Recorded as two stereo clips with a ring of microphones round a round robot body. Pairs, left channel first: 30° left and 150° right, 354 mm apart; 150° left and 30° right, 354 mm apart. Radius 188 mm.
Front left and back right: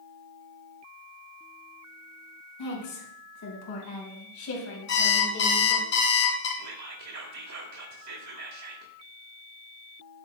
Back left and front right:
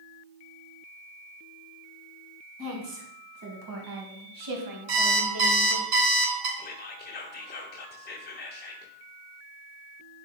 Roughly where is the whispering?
Behind right.